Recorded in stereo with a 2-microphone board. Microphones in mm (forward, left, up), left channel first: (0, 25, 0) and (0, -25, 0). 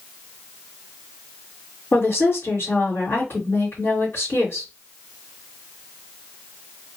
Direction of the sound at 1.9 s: 45° left (ahead or behind).